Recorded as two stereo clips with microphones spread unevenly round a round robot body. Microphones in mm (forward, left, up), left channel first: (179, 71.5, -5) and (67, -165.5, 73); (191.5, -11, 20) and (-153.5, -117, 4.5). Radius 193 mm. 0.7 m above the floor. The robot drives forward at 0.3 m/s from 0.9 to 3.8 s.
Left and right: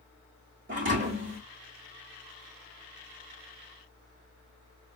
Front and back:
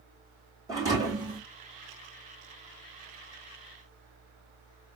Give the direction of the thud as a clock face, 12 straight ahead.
3 o'clock.